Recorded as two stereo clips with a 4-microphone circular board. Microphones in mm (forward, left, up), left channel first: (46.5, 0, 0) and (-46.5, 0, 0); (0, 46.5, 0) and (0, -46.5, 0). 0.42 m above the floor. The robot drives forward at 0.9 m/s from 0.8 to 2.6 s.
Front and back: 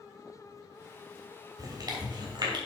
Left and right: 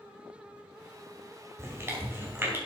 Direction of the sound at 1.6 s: 145° right.